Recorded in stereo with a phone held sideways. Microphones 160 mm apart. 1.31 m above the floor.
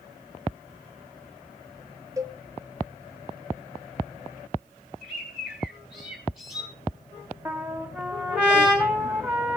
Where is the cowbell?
20° right (ahead or behind), 0.8 m.